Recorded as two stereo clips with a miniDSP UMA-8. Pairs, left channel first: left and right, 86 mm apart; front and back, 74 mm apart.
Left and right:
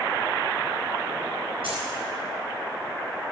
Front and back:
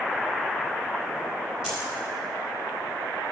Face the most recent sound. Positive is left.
turn(degrees=-100)